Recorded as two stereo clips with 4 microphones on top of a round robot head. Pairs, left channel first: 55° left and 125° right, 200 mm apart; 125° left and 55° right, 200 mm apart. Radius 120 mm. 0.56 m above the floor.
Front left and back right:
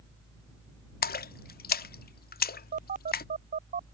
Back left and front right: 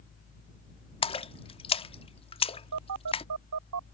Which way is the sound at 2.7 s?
70° right.